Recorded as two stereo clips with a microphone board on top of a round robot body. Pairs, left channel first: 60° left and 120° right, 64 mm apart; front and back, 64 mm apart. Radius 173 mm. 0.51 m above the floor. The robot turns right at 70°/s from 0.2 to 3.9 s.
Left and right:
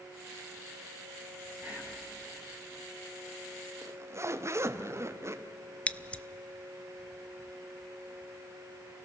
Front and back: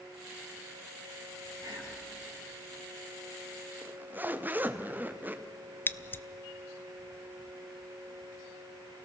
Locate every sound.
1.6 s whispering: straight behind, 7 m; by 2.0 s 150° right, 7 m
3.8 s a zipper: 135° right, 1.1 m; by 5.4 s 130° right, 1.1 m
5.9 s scissors: 5° left, 0.7 m